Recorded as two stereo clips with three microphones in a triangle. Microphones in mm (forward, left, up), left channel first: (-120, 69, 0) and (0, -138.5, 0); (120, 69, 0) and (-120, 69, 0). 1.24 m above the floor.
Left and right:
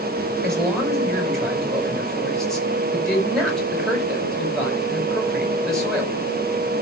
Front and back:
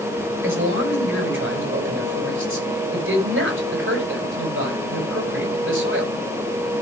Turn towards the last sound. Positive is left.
turn(degrees=-150)